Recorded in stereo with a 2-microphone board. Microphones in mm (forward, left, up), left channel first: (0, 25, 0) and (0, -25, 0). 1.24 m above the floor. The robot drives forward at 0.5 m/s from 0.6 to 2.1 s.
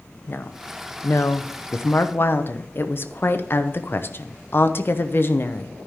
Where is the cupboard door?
I don't hear a cupboard door.